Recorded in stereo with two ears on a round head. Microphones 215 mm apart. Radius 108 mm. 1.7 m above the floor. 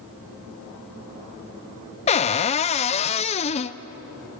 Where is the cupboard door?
25° left (ahead or behind), 0.5 m.